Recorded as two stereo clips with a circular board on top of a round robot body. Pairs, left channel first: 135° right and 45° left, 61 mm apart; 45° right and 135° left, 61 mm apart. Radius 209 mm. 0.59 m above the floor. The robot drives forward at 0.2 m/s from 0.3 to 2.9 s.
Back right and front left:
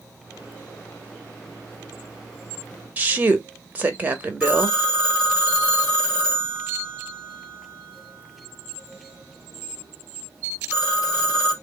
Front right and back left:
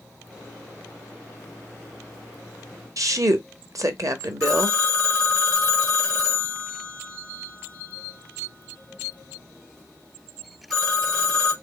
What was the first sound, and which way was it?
A woman speaking, 110° left.